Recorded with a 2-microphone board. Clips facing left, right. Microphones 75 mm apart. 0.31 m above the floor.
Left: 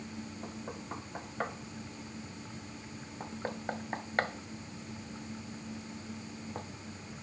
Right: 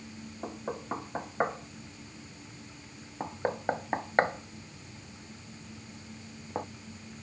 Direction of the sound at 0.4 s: 30° right (ahead or behind).